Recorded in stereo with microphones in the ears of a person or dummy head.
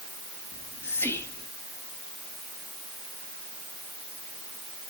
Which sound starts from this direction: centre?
Whispering, at 0.5 s.